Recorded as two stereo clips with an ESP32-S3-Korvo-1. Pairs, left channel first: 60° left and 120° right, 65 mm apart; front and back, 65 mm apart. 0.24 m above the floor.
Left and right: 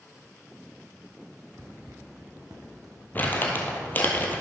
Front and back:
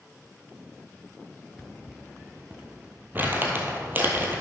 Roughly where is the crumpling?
Behind left.